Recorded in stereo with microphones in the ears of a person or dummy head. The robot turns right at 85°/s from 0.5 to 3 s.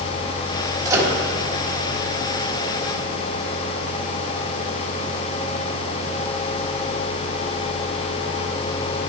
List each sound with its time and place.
0.8 s a microwave: 30° right (ahead or behind), 1.7 m; by 1.1 s centre (ahead or behind), 1.7 m